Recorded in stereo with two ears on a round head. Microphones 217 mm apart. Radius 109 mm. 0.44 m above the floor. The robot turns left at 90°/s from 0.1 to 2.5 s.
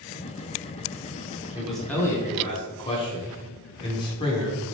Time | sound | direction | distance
1.6 | a man speaking | 5° right (ahead or behind) | 1.0 m